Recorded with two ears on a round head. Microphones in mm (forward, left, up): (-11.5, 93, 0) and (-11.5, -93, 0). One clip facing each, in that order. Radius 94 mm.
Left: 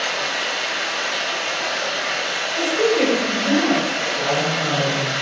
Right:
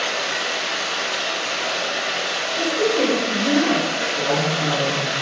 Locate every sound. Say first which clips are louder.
0.0 s running water: even; 45° right (ahead or behind), 0.7 m
2.6 s a woman speaking: left 2 dB; 5° left (ahead or behind), 1.7 m
4.2 s a man speaking: right 1 dB; 35° right (ahead or behind), 1.5 m